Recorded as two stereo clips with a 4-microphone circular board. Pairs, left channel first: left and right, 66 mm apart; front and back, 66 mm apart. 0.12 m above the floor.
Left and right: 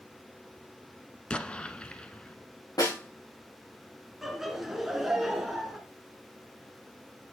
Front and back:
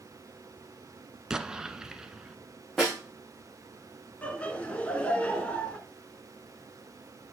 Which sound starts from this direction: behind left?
An explosion, at 1.3 s.